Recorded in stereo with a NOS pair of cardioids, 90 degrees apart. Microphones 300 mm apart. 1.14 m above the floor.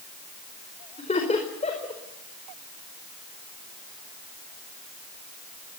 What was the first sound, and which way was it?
Laughter, 20° left.